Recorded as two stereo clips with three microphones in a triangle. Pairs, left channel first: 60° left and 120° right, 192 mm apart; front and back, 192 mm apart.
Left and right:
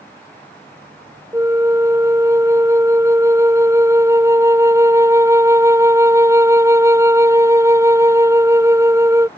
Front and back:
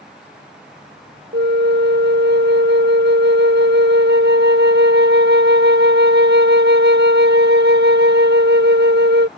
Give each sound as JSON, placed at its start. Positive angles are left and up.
{"t": 1.3, "sound": "a flute", "azimuth_deg": 165}